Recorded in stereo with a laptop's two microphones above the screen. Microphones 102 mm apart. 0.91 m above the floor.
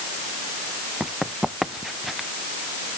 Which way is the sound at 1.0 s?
5° right (ahead or behind).